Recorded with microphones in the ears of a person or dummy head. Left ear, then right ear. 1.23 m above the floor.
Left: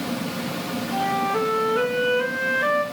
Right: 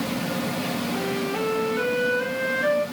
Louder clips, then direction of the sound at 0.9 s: Left 8 dB; 65° left (ahead or behind).